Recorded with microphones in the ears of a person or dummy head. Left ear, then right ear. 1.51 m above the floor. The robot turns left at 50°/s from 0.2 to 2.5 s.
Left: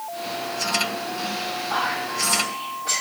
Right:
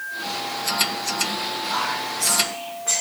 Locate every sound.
1.7 s whispering: 75° right (ahead or behind), 2.0 m; by 3.0 s 35° right (ahead or behind), 2.0 m